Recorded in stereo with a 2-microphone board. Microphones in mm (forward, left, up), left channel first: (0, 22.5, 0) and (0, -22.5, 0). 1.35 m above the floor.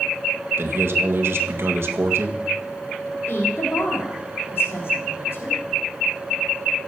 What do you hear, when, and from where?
0.6 s a man speaking: 65° right (ahead or behind), 1.7 m
3.3 s a woman speaking: 65° left (ahead or behind), 3.5 m